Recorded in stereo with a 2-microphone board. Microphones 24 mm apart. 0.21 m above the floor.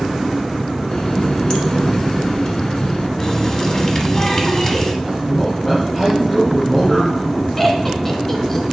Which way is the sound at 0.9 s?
45° left (ahead or behind).